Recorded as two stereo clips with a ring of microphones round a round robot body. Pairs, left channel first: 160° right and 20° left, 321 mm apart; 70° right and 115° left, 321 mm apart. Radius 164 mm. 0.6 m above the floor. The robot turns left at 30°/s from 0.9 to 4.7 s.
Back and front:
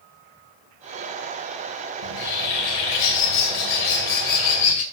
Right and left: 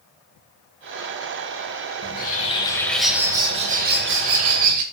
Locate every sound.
2.0 s a bird: 130° right, 2.5 m; by 4.8 s 150° left, 2.5 m